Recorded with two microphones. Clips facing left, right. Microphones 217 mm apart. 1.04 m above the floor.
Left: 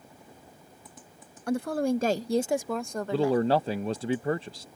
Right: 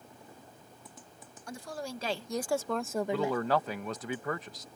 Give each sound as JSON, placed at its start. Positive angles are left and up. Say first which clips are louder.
{"t": 1.5, "sound": "a woman speaking", "louder": "left 14 dB", "side_deg": 65}
{"t": 3.1, "sound": "a man speaking", "louder": "left 7 dB", "side_deg": 30}